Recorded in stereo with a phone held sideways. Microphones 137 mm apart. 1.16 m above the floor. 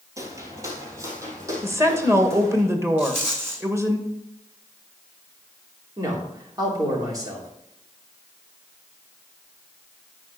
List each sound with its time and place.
0.2 s footsteps: 25° right (ahead or behind), 1.7 m; by 2.6 s 20° right (ahead or behind), 4 m
1.6 s a woman speaking: 20° right (ahead or behind), 1.5 m
3.0 s a rattle: 15° right (ahead or behind), 2.5 m
6.0 s a man speaking: 25° right (ahead or behind), 3 m